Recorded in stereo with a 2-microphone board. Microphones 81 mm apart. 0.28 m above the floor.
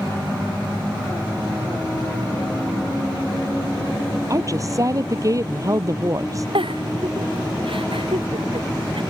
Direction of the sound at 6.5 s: 90° right.